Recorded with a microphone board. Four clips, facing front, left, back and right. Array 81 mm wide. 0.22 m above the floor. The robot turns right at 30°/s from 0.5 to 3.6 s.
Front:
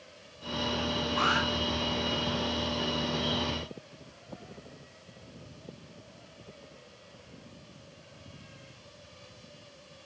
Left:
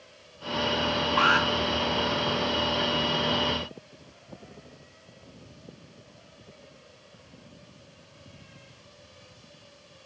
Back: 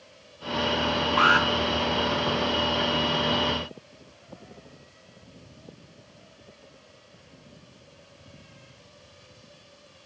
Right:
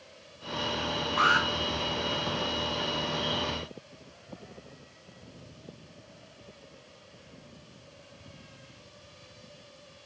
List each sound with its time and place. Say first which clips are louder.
1.2 s an alarm: left 1 dB, back 8 dB; 145° left, 3.5 m; by 1.5 s 150° left, 3.5 m